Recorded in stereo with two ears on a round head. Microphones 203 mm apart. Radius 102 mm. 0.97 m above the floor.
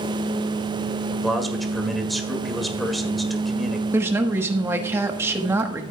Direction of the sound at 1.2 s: Centre (ahead or behind).